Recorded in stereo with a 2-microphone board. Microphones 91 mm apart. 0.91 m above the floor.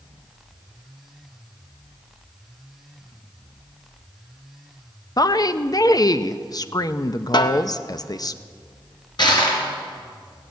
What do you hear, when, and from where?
5.2 s a woman speaking: 45° left (ahead or behind), 0.5 m
7.3 s a snare drum: 50° left (ahead or behind), 0.7 m
9.2 s crushing: 55° left (ahead or behind), 3 m